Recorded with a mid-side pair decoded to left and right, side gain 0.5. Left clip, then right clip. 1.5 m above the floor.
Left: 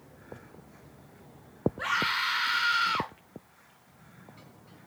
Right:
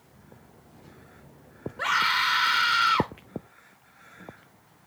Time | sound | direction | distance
1.8 | a scream | 35° right | 0.8 m